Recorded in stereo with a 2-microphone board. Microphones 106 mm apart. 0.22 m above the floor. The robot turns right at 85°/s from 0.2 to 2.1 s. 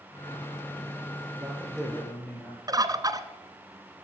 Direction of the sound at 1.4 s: 40° right.